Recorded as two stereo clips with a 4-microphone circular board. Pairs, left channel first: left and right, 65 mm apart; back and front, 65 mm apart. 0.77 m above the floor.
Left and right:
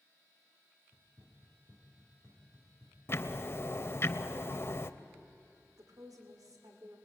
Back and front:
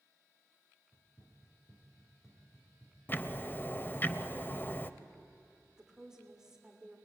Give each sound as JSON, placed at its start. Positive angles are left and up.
{"t": 0.9, "sound": "running footsteps", "azimuth_deg": -135, "distance_m": 4.0}
{"t": 3.1, "sound": "ticking", "azimuth_deg": 130, "distance_m": 0.7}
{"t": 5.8, "sound": "a woman speaking", "azimuth_deg": -80, "distance_m": 2.5}